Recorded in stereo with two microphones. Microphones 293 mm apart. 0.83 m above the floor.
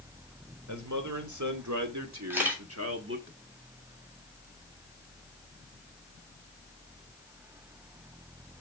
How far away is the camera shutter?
About 3 m.